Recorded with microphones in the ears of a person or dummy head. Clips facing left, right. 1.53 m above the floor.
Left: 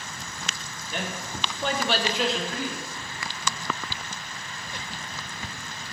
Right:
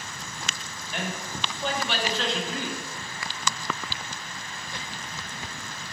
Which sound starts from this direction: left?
A man speaking, at 0.9 s.